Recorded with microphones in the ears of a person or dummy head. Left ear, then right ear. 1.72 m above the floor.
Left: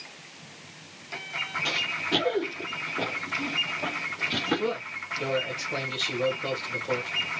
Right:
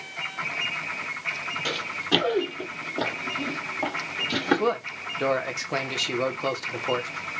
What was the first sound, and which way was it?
Running footsteps, 20° right (ahead or behind).